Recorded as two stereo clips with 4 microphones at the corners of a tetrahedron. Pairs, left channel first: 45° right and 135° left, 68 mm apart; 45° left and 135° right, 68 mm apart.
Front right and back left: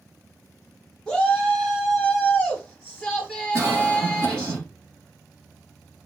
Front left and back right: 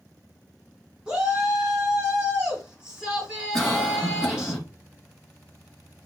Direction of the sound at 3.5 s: 135° left.